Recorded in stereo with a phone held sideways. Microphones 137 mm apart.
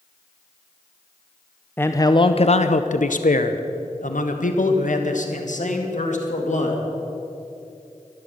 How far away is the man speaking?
About 0.5 m.